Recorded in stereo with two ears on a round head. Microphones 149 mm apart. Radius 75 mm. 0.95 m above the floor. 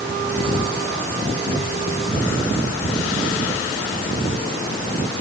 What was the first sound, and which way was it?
Only background noise.